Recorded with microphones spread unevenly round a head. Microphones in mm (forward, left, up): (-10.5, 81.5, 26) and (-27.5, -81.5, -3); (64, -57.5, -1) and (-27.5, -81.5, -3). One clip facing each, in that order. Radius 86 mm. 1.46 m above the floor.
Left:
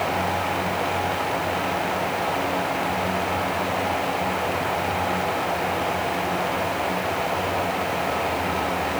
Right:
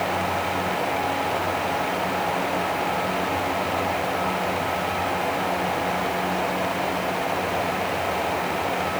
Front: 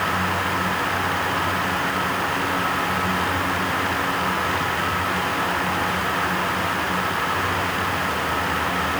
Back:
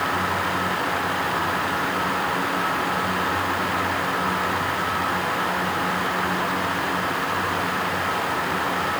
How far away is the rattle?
No rattle in this recording.